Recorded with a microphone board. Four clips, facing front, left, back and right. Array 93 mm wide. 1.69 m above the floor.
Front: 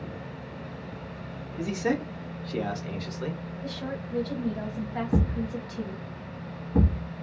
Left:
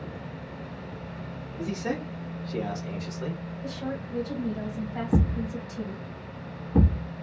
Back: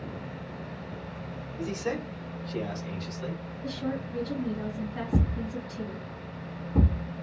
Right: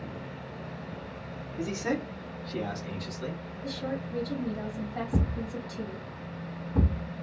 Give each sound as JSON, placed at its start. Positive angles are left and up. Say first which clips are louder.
{"t": 1.6, "sound": "a man speaking", "louder": "even, front 4 dB", "azimuth_deg": -10, "distance_m": 1.5}
{"t": 3.6, "sound": "a woman speaking", "louder": "even, back 3 dB", "azimuth_deg": 20, "distance_m": 1.8}
{"t": 5.1, "sound": "a thud", "louder": "left 7 dB, front 2 dB", "azimuth_deg": 60, "distance_m": 1.5}